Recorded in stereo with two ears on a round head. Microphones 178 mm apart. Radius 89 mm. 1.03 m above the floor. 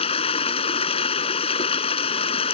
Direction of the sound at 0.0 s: 30° left (ahead or behind).